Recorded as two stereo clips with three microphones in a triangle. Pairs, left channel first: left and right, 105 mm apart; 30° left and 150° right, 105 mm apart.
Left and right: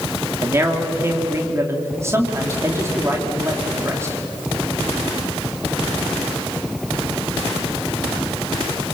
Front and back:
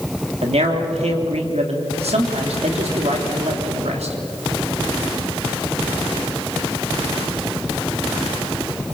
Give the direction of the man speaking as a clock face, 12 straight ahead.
5 o'clock.